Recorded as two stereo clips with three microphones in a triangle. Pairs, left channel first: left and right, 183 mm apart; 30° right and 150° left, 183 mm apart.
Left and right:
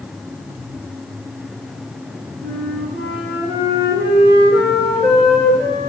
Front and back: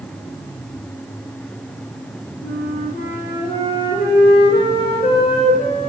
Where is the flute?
60° right, 4.5 m.